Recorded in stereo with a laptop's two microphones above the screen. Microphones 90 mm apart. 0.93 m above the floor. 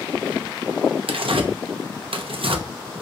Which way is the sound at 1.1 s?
75° right (ahead or behind).